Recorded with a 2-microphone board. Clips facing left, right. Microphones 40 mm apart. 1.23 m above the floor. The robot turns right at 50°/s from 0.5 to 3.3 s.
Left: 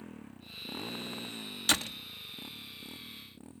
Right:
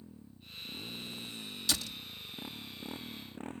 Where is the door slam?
55° left (ahead or behind); by 2.0 s 40° left (ahead or behind).